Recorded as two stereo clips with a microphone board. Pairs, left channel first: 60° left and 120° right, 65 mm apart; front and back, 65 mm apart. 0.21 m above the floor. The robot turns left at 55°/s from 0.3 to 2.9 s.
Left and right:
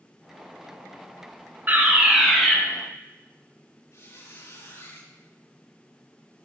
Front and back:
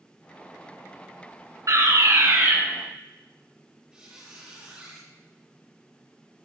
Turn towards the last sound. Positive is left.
turn(degrees=105)